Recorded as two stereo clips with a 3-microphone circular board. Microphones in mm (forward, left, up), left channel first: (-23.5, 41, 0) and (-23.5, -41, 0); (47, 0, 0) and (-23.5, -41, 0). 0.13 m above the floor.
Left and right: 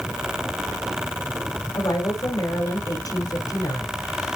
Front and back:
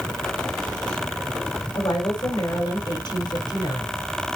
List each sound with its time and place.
1.7 s a woman speaking: 55° left, 4 m